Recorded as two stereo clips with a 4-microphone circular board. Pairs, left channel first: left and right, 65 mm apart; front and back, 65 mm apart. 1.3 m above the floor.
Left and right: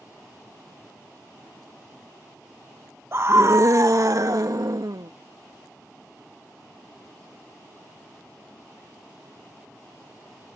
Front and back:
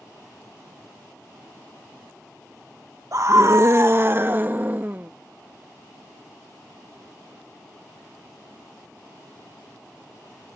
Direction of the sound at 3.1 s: 140° right.